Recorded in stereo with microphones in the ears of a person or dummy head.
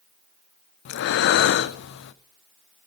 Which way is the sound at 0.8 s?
60° left (ahead or behind).